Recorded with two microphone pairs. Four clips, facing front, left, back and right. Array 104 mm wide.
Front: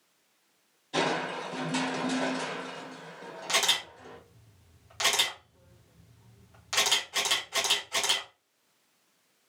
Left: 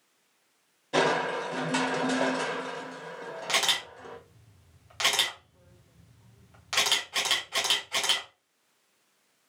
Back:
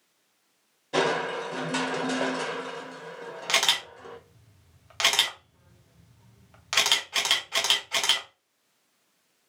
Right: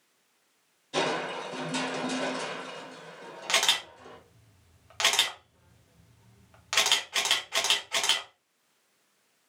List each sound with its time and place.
0.9 s crushing: 130° left, 1.0 m
3.5 s a camera shutter: 145° right, 1.3 m